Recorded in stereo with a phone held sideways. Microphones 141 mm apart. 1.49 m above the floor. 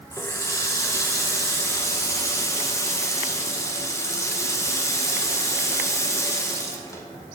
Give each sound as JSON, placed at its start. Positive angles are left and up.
{"t": 0.1, "sound": "a running tap", "side_deg": 20, "distance_m": 0.6}